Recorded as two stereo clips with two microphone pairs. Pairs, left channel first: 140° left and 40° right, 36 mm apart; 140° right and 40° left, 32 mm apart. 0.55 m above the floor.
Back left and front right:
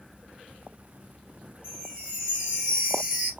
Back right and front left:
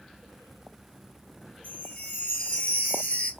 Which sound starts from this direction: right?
A chime, at 1.6 s.